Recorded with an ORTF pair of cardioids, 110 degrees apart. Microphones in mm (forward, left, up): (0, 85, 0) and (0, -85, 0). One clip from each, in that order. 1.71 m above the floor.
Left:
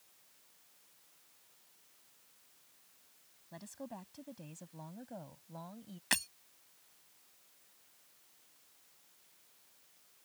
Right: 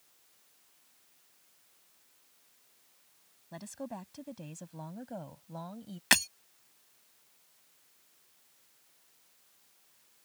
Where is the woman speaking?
30° right; by 6.0 s 35° right.